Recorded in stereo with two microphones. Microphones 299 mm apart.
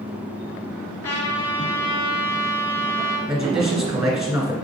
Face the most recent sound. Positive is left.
turn(degrees=-5)  # may be behind; listen again after turning